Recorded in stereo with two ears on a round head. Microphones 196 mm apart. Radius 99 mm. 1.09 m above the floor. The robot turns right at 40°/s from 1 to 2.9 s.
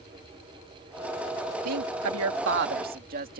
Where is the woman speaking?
95° right; by 3.4 s 45° right.